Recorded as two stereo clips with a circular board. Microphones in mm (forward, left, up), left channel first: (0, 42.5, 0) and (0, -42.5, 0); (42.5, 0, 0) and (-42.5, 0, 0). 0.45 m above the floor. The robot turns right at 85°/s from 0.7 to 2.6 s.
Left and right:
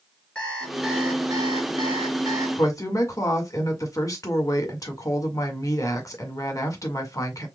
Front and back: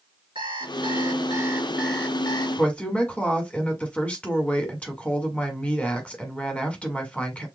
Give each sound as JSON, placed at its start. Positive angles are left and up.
{"t": 0.3, "sound": "an alarm clock", "azimuth_deg": 175, "distance_m": 4.0}
{"t": 2.6, "sound": "a woman speaking", "azimuth_deg": 65, "distance_m": 1.6}